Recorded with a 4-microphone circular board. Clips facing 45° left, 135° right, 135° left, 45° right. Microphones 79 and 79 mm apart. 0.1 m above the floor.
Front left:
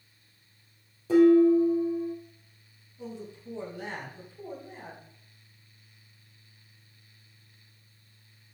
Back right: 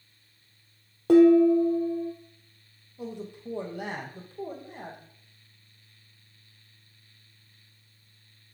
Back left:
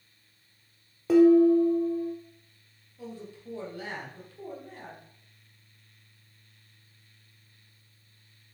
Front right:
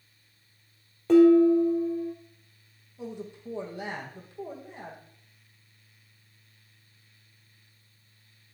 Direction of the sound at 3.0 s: 110° right.